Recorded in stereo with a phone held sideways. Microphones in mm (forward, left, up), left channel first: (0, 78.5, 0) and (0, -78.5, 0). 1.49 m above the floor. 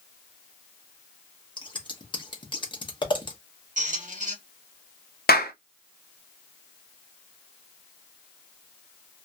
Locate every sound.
1.6 s scissors: 30° left (ahead or behind), 0.8 m
3.8 s a squeak: 55° right (ahead or behind), 0.7 m
5.3 s a clap: 75° left (ahead or behind), 0.6 m